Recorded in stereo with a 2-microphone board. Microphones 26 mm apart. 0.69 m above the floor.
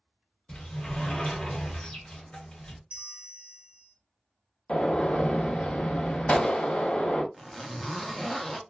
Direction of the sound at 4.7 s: 65° left (ahead or behind).